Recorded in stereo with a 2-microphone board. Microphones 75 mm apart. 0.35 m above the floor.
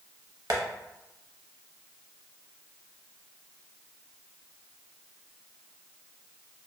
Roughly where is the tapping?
Right.